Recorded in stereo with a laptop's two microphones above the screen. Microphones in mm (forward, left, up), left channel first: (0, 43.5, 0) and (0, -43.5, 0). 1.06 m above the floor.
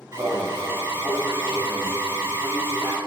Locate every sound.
0.1 s an alarm: 30° right (ahead or behind), 3.5 m